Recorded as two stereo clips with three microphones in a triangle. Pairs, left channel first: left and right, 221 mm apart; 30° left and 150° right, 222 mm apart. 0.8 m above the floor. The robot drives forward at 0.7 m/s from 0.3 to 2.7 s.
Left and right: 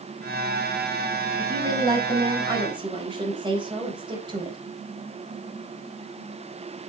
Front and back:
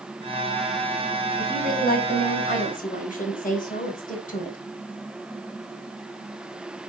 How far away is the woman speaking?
About 5 m.